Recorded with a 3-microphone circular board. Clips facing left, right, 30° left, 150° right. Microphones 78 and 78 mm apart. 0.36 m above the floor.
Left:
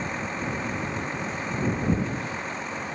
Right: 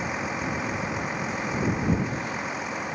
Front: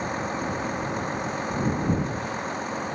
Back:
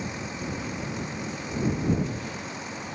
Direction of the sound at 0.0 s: 10° right.